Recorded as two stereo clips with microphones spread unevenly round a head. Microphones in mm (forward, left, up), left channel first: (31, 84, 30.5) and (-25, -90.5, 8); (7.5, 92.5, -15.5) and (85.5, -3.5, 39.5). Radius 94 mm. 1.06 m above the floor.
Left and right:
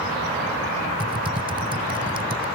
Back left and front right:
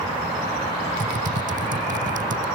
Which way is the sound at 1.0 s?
45° right.